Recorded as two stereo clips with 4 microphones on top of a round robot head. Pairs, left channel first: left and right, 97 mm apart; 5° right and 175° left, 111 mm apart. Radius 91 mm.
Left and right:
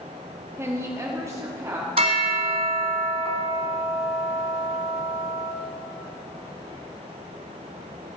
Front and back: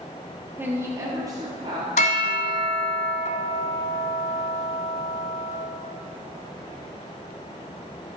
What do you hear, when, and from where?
0.6 s a woman speaking: 125° right, 1.1 m; by 1.9 s 140° right, 1.6 m
2.0 s a bell: 40° right, 0.9 m